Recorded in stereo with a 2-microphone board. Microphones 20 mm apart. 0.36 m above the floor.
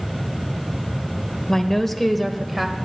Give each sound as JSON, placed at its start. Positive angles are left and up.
{"t": 1.5, "sound": "a woman speaking", "side_deg": 25, "distance_m": 1.0}